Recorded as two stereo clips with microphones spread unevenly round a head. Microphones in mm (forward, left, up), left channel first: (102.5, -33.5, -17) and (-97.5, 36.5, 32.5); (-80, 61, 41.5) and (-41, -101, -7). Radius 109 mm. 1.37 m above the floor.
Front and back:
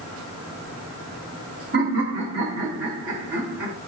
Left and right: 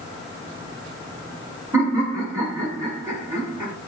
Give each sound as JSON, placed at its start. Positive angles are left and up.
{"t": 1.7, "sound": "laughter", "azimuth_deg": -155, "distance_m": 2.5}